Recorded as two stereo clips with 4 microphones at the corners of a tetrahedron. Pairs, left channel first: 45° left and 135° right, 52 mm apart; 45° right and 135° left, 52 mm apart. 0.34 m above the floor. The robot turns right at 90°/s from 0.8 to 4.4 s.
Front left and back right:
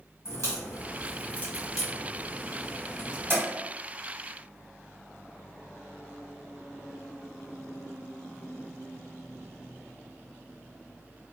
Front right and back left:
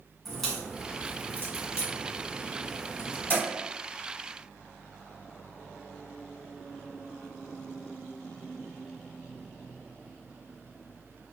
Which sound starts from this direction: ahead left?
A crack, at 0.2 s.